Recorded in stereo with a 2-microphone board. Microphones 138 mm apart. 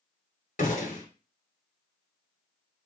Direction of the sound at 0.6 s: 65° left (ahead or behind).